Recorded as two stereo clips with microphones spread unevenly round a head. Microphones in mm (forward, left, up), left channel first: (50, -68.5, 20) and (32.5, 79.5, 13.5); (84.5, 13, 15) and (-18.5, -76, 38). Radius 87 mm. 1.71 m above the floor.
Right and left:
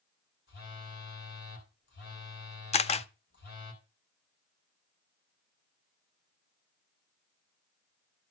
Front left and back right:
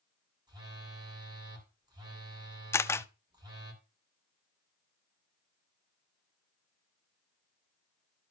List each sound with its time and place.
0.5 s a phone buzzing: 85° right, 2.5 m
2.7 s a camera shutter: 30° right, 0.6 m